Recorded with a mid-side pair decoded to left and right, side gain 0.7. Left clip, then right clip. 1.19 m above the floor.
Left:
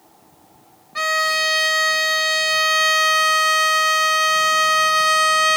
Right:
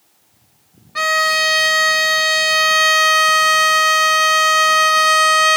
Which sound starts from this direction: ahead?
A violin, at 0.9 s.